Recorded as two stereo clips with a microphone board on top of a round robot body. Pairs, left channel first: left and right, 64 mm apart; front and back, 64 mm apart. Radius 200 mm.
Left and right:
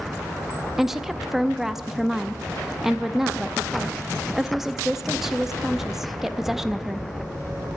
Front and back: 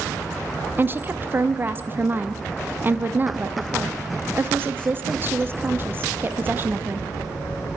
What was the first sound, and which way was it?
A woman speaking, 170° right.